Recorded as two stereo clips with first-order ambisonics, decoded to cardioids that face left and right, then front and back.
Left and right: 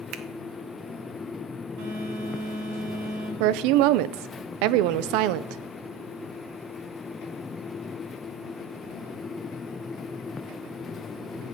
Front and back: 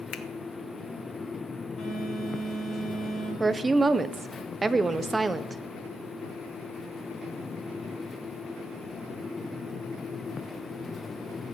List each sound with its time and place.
0.1 s a finger snap: 45° right, 0.8 m
1.8 s a phone buzzing: 70° right, 4 m
3.4 s a woman speaking: 100° right, 0.6 m